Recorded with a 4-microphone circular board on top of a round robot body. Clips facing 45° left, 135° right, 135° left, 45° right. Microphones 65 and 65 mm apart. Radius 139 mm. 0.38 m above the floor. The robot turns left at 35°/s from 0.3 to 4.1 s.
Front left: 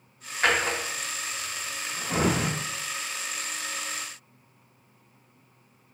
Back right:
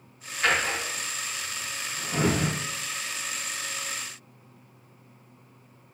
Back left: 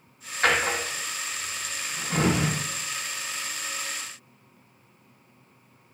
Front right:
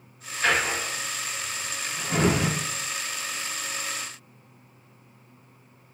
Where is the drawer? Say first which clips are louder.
Front left 1 dB, back left 1 dB; 95° left, 0.8 m; by 2.5 s 25° left, 0.8 m.